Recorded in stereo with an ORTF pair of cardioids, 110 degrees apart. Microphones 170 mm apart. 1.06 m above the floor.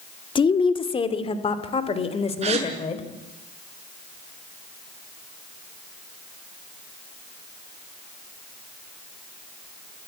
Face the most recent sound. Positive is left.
turn(degrees=-40)